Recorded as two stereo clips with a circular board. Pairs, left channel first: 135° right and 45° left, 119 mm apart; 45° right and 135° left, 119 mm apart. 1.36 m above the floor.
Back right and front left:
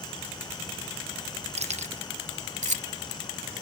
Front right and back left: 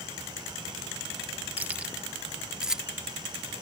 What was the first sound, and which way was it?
Keys jangling, 60° left.